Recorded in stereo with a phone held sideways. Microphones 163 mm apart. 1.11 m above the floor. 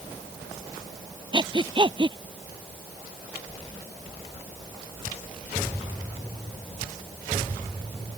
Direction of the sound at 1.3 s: 30° right (ahead or behind).